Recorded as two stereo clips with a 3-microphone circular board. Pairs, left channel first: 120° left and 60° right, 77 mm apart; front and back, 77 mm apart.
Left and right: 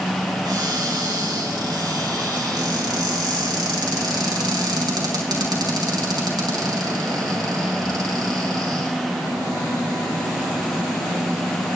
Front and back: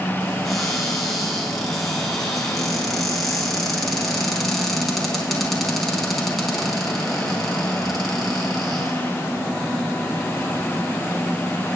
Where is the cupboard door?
90° right, 3.5 m.